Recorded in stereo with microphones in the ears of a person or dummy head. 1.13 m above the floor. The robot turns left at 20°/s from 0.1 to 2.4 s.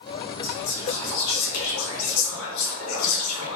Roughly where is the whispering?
Behind left.